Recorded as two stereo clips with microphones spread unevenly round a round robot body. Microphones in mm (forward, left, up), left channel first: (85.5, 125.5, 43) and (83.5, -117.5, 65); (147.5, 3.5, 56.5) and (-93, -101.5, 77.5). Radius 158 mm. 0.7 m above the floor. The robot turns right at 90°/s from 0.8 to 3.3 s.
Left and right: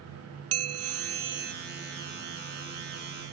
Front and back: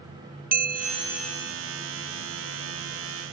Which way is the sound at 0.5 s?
100° right.